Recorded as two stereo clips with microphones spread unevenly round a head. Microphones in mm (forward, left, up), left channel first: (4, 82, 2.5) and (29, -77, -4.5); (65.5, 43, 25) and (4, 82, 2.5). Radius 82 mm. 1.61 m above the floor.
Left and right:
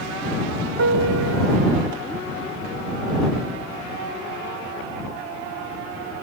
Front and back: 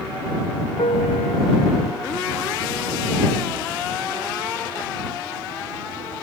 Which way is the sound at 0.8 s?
70° right.